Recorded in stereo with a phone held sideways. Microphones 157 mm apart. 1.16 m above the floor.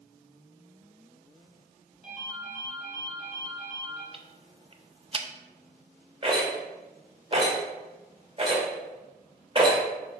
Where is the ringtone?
40° left (ahead or behind), 2 m.